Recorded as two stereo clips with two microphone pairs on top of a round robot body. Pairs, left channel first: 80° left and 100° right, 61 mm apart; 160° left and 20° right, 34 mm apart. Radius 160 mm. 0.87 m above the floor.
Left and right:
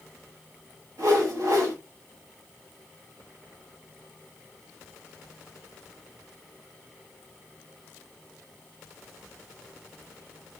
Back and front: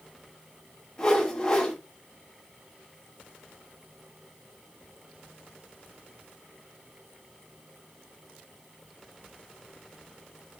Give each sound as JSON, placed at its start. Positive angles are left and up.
{"t": 1.0, "sound": "a whoosh", "azimuth_deg": -135, "distance_m": 2.5}